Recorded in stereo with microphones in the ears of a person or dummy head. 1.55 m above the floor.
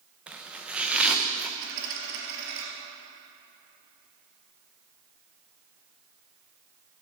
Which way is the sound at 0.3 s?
5° right (ahead or behind).